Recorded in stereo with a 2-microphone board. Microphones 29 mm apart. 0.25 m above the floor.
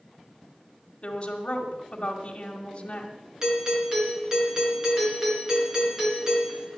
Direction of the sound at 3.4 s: 20° right (ahead or behind).